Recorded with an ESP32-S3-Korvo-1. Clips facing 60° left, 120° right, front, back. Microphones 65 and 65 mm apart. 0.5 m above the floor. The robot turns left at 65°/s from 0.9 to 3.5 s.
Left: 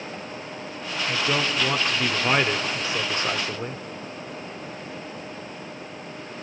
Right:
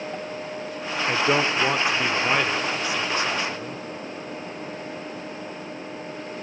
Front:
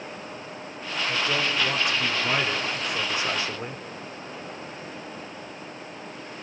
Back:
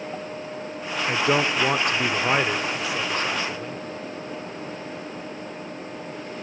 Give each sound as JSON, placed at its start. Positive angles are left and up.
{"t": 1.1, "sound": "a man speaking", "azimuth_deg": -145, "distance_m": 1.3}